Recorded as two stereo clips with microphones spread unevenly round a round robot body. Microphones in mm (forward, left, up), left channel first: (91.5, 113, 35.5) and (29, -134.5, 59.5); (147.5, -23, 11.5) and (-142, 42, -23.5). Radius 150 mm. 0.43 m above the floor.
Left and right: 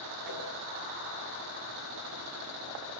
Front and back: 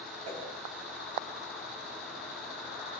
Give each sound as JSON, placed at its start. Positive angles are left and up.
{"t": 0.2, "sound": "a whoosh", "azimuth_deg": -120, "distance_m": 8.5}